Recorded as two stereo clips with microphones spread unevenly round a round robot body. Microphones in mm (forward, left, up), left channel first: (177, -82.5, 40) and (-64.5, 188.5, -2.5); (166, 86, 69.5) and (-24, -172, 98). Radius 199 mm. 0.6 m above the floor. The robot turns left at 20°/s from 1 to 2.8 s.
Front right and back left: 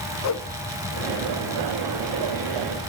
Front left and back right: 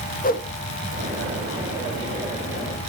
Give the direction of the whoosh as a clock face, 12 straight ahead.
12 o'clock.